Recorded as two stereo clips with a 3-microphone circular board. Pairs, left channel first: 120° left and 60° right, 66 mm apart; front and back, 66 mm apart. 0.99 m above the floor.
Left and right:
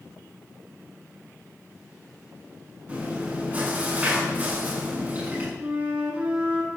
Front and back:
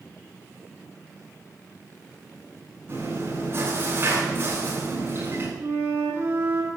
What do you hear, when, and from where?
2.9 s chewing: 125° right, 8 m
5.6 s a flute: 130° right, 8.5 m